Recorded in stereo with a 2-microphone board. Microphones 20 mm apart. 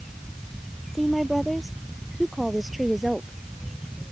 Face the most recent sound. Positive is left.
turn(degrees=-20)  # may be behind; listen again after turning